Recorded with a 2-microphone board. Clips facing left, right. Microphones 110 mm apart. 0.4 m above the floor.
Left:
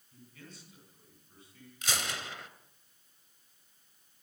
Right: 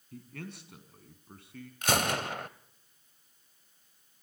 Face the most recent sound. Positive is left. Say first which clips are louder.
# right 9 dB
turn(degrees=-55)  # may be behind; listen again after turning